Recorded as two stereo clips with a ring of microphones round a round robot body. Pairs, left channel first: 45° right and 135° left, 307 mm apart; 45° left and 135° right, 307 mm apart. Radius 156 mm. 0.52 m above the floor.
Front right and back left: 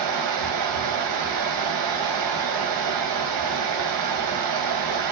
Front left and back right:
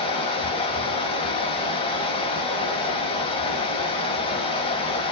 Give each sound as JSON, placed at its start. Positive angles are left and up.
{"t": 0.0, "sound": "running water", "azimuth_deg": 120, "distance_m": 2.5}